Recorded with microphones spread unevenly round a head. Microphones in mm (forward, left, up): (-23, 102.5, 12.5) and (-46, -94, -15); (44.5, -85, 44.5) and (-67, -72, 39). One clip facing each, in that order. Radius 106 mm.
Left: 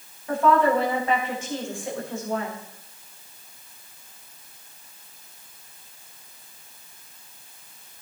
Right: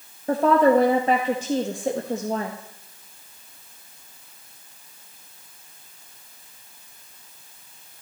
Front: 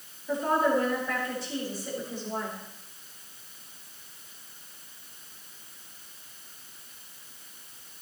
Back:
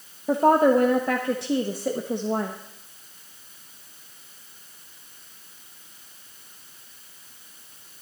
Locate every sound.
0.3 s a woman speaking: 155° right, 1.0 m